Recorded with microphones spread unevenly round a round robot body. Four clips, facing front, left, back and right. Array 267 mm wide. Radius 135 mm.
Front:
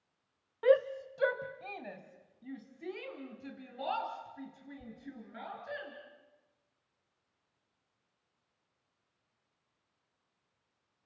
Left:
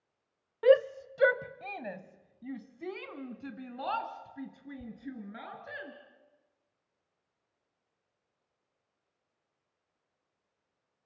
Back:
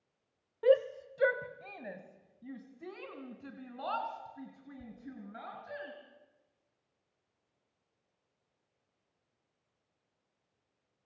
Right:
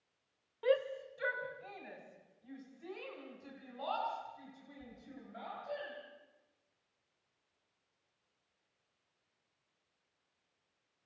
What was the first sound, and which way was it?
A shout, 95° left.